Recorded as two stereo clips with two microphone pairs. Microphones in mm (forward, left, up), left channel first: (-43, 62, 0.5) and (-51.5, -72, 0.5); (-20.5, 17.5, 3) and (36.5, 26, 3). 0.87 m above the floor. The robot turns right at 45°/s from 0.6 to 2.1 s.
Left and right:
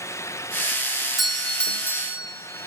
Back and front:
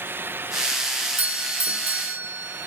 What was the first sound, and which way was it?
A doorbell, 10° right.